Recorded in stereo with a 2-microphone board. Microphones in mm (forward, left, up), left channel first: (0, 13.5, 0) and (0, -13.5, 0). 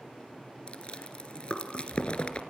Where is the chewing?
40° left (ahead or behind), 3 m.